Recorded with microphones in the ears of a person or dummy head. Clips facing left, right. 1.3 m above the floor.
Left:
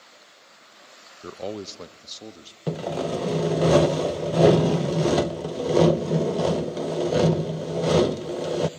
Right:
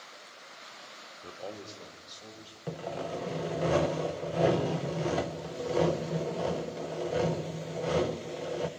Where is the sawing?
60° left (ahead or behind), 0.6 m.